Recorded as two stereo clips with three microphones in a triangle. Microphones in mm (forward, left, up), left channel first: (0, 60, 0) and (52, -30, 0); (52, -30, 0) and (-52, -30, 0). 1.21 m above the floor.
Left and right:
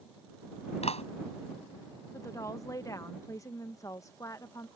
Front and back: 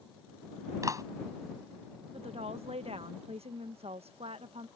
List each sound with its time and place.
0.8 s a clap: 125° left
2.1 s a woman speaking: 175° left